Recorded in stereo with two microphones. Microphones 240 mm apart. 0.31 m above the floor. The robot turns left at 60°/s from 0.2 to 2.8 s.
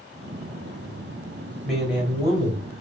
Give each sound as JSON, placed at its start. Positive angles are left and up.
{"t": 1.6, "sound": "a man speaking", "azimuth_deg": 5, "distance_m": 1.6}